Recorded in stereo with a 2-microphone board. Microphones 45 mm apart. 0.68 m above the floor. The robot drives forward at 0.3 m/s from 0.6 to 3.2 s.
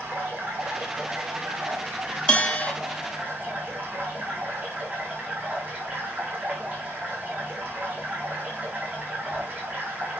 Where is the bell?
25° left (ahead or behind), 1.3 m.